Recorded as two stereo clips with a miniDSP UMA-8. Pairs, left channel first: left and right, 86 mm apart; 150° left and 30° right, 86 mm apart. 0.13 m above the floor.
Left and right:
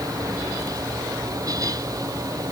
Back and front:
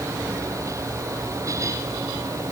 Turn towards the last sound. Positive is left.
No sound to turn to.